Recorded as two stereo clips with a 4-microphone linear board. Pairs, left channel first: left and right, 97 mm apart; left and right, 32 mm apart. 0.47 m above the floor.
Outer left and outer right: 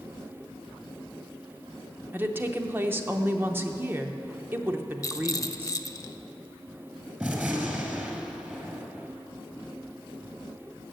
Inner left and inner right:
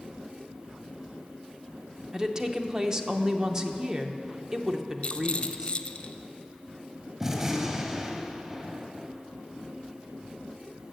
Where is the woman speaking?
20° right (ahead or behind), 0.8 m.